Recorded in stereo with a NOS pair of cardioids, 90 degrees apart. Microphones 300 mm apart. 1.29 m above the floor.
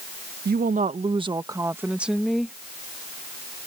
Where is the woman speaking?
35° right; by 2.5 s 5° left.